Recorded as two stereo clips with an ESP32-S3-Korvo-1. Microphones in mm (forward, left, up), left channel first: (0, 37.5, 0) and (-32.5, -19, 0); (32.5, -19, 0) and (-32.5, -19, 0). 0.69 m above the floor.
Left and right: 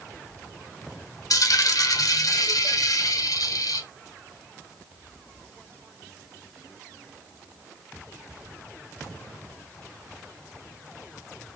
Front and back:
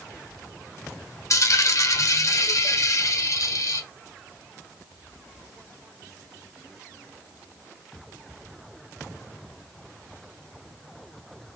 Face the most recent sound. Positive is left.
turn(degrees=35)